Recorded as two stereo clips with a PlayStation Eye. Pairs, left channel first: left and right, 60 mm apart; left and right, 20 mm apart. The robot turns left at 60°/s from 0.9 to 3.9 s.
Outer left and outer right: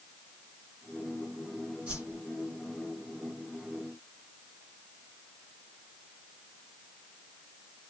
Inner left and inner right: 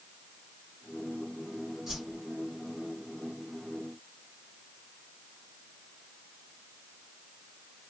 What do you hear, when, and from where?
1.9 s a whoosh: 20° right (ahead or behind), 1.9 m; by 2.2 s 30° right (ahead or behind), 1.9 m